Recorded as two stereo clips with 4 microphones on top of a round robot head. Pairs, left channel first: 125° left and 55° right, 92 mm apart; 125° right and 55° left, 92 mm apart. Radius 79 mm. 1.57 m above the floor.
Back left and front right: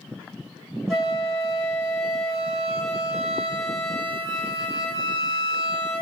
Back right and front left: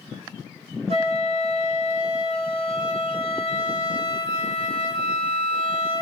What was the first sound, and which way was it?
A flute, 35° left.